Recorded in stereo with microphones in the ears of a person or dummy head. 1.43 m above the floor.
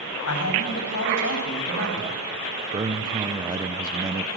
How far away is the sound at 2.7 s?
About 1.1 m.